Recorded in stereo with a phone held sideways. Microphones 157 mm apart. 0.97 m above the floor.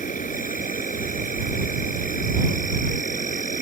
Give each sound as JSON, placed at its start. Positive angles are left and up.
{"t": 0.0, "sound": "an insect", "side_deg": 55}